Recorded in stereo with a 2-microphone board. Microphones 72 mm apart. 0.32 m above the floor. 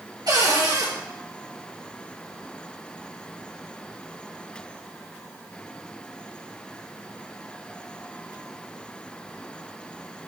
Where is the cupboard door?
75° right (ahead or behind), 3.5 m.